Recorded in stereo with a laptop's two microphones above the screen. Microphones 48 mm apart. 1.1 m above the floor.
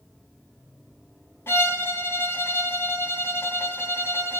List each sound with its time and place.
1.5 s a violin: 55° left (ahead or behind), 3.5 m